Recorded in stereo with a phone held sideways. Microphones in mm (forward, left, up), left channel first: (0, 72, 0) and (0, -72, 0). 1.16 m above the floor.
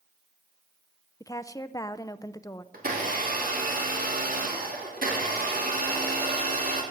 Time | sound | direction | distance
1.2 | a woman speaking | 20° left (ahead or behind) | 0.5 m
2.7 | a blender | 65° right (ahead or behind) | 2.5 m